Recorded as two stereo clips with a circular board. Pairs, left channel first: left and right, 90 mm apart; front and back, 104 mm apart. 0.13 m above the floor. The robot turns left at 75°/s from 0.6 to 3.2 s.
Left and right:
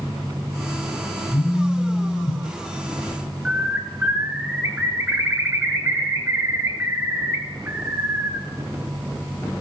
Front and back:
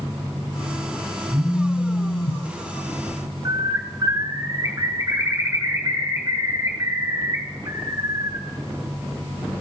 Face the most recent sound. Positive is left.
turn(degrees=-150)